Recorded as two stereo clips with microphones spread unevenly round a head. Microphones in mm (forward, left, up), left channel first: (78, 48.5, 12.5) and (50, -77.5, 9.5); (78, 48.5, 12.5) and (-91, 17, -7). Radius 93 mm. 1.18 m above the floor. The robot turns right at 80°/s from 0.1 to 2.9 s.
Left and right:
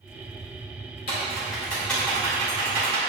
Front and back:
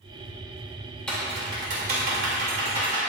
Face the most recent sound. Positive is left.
turn(degrees=-115)